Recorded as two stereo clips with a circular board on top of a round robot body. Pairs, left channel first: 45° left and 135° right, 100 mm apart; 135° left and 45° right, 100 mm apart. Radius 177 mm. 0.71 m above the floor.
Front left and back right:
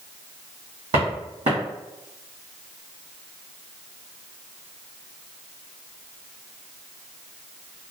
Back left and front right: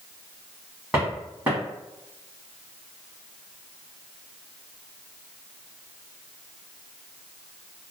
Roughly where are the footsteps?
Behind right.